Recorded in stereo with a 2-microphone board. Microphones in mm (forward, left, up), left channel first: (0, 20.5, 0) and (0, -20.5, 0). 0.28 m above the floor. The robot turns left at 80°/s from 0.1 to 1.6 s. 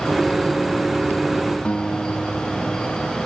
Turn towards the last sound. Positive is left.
turn(degrees=25)  # may be behind; listen again after turning